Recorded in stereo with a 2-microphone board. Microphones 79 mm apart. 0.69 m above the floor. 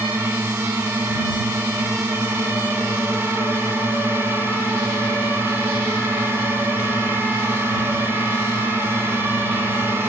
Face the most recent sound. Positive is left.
turn(degrees=-30)  # may be behind; listen again after turning